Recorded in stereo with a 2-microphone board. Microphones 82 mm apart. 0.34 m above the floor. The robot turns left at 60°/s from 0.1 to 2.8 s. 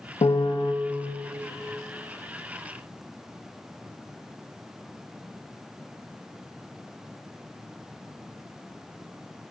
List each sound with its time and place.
0.2 s a piano: 100° left, 0.5 m; by 0.7 s 65° left, 0.5 m